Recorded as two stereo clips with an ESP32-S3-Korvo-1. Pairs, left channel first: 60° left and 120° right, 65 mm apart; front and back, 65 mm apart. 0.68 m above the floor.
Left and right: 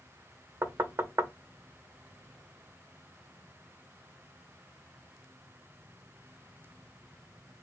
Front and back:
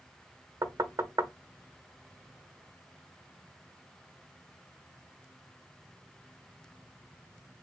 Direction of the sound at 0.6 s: 165° right.